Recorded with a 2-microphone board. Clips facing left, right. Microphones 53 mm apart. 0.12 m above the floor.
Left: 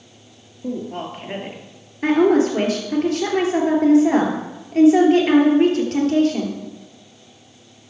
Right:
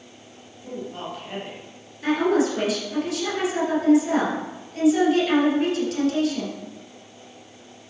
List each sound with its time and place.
0.6 s a woman speaking: 45° left (ahead or behind), 2 m
2.0 s a woman speaking: 45° left (ahead or behind), 2.5 m